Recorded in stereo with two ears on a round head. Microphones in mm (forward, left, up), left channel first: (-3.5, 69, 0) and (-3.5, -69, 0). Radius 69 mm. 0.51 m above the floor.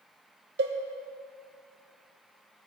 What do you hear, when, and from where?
0.6 s a cowbell: 75° right (ahead or behind), 1.0 m